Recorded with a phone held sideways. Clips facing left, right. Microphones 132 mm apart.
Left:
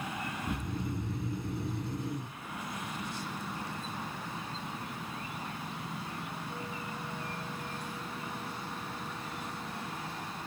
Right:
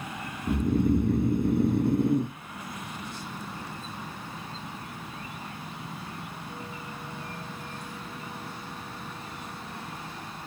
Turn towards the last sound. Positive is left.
turn(degrees=-55)  # may be behind; listen again after turning